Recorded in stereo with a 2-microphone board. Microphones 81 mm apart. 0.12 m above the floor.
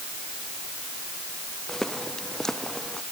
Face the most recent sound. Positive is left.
turn(degrees=5)  # may be behind; listen again after turning